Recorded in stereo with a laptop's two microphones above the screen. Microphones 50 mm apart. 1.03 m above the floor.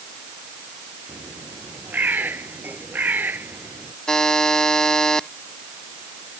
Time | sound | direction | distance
1.1 | a bird | 35° right (ahead or behind) | ?
4.1 | a buzzer | 10° left (ahead or behind) | ?